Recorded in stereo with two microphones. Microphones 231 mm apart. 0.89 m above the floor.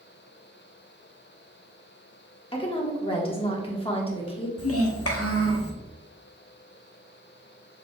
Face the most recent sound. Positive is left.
turn(degrees=80)